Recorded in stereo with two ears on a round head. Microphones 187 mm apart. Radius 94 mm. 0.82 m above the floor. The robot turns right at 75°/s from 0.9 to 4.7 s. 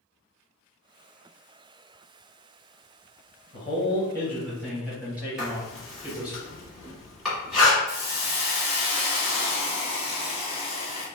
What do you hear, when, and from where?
3.5 s a man speaking: 30° left (ahead or behind), 1.0 m; by 6.4 s 5° right (ahead or behind), 1.0 m
5.4 s writing: centre (ahead or behind), 1.5 m
7.9 s a hiss: 25° left (ahead or behind), 0.9 m